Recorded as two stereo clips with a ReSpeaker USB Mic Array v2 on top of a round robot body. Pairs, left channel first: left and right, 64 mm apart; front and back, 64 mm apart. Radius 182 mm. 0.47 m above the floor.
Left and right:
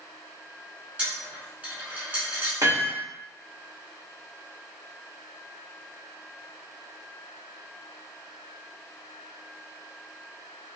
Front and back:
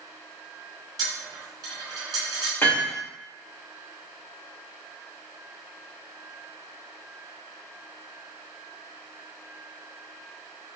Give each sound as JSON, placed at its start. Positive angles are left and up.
{"t": 1.0, "sound": "a dropped coin", "azimuth_deg": -155, "distance_m": 0.7}
{"t": 2.6, "sound": "hammering", "azimuth_deg": -55, "distance_m": 1.6}